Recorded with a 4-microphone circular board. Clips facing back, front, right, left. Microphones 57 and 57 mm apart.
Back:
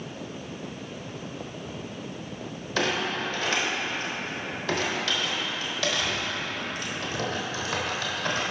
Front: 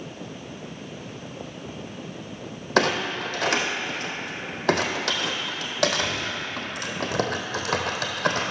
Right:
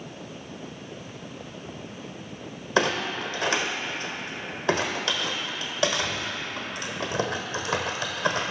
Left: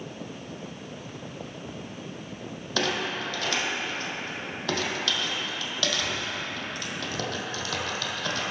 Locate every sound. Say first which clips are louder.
2.8 s a clunk: front 4 dB, right 4 dB; 30° right, 1.0 m